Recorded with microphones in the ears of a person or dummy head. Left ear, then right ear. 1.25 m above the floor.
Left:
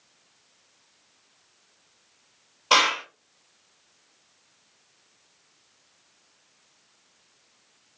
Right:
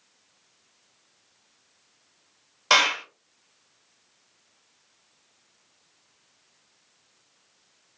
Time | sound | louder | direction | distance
2.7 | a clap | even | 65° right (ahead or behind) | 0.8 m